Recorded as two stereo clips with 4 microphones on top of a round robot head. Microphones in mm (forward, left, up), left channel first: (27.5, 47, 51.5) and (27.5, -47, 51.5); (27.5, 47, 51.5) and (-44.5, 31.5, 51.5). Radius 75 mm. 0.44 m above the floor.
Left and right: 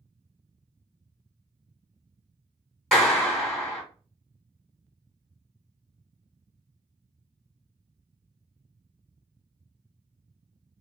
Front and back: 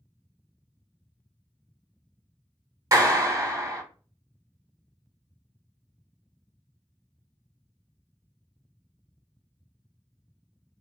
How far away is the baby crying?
No baby crying in this recording.